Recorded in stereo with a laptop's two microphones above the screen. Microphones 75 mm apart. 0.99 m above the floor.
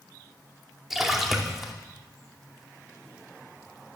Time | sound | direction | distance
0.9 | a splash | 5° right (ahead or behind) | 2.5 m